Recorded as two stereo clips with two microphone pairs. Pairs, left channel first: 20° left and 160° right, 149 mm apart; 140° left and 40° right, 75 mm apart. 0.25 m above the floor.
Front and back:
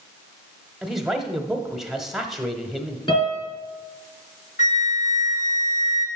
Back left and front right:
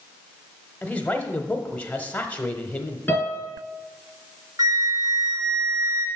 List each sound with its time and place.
0.8 s a man speaking: 120° left, 0.9 m
3.1 s a piano: 70° left, 4 m
4.6 s a flute: 10° right, 1.6 m